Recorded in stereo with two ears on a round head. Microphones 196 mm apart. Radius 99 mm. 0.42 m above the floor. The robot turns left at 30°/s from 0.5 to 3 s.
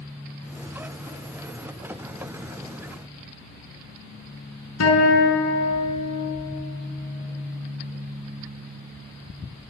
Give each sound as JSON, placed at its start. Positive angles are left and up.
{"t": 4.8, "sound": "a guitar", "side_deg": 70, "distance_m": 6.0}